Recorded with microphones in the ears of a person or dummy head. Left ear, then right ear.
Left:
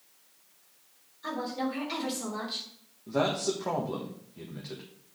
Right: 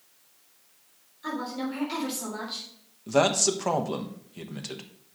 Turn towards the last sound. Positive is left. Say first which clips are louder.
# right 6 dB
turn(degrees=-75)  # may be behind; listen again after turning